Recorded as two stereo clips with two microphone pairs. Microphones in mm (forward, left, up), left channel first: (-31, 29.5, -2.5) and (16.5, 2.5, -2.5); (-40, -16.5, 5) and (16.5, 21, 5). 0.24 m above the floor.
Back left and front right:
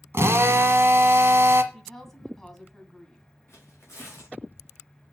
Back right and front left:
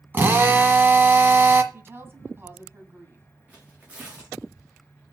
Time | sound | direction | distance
0.1 | a drill | 15° right | 1.4 m
1.7 | a woman speaking | 70° left | 1.9 m
3.5 | tearing paper | 100° left | 4 m